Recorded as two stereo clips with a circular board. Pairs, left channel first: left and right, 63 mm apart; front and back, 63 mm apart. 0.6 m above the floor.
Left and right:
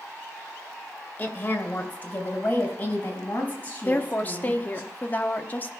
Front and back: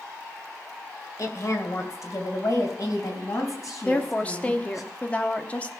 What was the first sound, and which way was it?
A woman speaking, 30° left.